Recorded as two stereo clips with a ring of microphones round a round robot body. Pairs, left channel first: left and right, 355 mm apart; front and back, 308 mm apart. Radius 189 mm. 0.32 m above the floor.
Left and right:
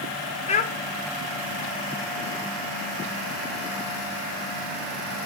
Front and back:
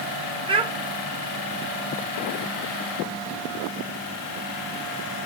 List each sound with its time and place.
0.5 s a child speaking: 130° left, 0.8 m